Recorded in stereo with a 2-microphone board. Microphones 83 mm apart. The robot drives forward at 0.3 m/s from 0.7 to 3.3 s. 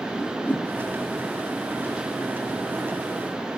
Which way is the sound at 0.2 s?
20° left (ahead or behind).